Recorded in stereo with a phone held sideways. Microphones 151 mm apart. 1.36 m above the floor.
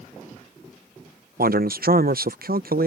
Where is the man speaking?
75° right (ahead or behind).